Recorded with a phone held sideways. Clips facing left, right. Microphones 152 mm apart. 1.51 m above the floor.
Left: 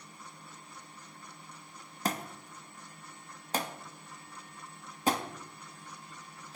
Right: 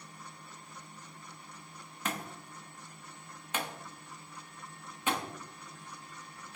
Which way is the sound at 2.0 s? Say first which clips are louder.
Left 4 dB; 35° left (ahead or behind).